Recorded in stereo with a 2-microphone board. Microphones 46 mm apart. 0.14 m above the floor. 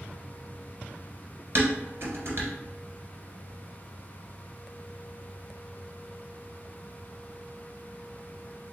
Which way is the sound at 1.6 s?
55° right (ahead or behind).